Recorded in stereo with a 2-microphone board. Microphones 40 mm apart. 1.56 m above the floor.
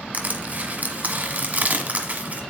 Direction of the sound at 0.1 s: 40° right (ahead or behind).